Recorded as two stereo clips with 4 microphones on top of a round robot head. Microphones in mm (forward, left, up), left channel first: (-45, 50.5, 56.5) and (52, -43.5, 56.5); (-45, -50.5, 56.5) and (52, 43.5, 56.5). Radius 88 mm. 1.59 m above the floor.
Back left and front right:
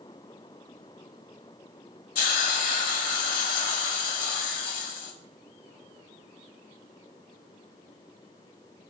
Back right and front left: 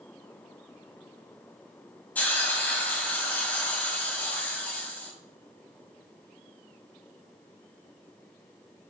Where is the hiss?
145° left, 3.5 m.